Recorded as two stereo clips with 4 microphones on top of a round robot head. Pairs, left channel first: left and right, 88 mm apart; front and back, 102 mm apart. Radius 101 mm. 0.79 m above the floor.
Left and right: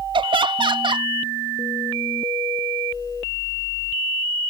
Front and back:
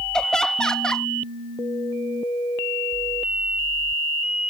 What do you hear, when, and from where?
0.1 s laughter: 85° right